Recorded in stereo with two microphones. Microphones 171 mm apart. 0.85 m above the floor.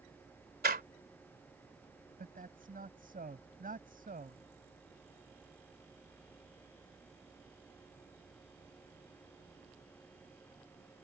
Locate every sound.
0.6 s a door slam: 75° right (ahead or behind)
2.2 s a man speaking: 60° right (ahead or behind)